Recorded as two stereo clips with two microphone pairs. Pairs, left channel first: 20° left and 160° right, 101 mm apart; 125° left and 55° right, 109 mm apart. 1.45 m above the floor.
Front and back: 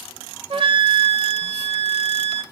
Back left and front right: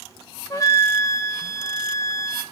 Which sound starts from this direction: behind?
A flute, at 0.5 s.